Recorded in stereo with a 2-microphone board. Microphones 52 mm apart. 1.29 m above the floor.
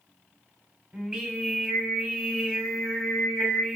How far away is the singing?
About 1.6 m.